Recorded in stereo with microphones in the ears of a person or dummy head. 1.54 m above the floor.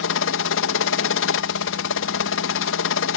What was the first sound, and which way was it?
A helicopter, 60° left (ahead or behind).